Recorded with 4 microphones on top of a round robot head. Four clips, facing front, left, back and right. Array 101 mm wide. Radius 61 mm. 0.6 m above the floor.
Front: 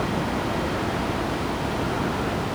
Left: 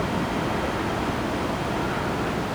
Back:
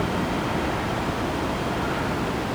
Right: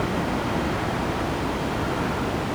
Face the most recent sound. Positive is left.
No sound to turn to.